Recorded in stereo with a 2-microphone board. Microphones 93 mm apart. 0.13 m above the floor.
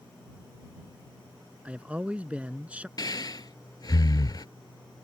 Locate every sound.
1.6 s a man speaking: 15° right (ahead or behind)
3.0 s breathing: 45° left (ahead or behind)